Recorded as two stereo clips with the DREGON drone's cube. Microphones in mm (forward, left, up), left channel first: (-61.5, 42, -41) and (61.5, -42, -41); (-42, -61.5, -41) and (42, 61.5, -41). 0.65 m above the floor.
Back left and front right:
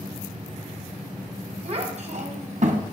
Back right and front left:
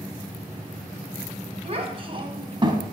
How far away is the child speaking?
About 2 m.